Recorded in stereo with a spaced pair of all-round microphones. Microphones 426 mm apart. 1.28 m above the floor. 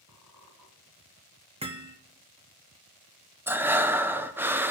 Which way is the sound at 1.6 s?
15° right (ahead or behind).